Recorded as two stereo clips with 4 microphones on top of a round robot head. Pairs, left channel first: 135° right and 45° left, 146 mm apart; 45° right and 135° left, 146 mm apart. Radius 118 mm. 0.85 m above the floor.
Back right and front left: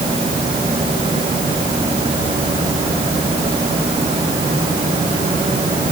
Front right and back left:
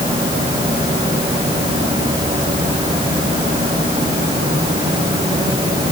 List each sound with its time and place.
Only background noise.